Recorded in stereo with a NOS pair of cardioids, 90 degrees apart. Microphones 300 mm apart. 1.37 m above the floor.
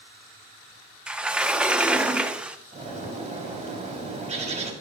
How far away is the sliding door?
About 1.0 m.